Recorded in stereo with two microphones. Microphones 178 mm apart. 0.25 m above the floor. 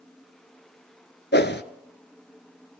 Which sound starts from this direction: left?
A whoosh, at 1.3 s.